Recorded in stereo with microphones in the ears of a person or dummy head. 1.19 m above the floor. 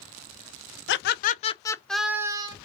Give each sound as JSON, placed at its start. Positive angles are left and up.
{"t": 0.9, "sound": "laughter", "side_deg": 60, "distance_m": 0.6}